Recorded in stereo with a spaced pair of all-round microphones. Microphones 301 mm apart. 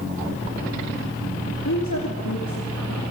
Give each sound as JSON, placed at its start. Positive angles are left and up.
{"t": 1.6, "sound": "a woman speaking", "side_deg": 70, "distance_m": 2.5}